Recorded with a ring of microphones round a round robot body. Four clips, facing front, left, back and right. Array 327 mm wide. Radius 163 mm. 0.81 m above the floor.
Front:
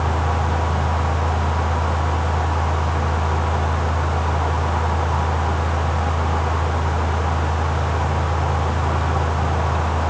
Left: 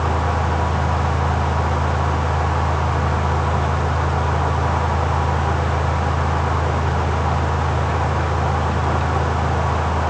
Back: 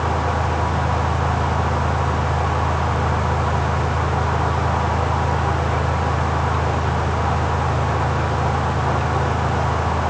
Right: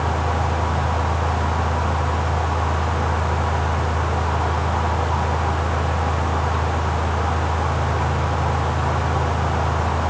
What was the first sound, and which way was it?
Only background noise.